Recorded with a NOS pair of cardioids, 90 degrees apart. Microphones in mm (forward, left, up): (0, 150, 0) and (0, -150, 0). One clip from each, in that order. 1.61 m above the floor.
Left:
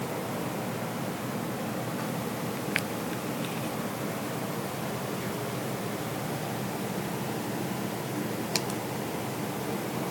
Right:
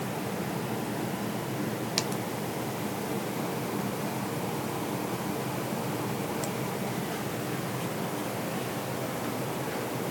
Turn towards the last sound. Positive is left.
No sound to turn to.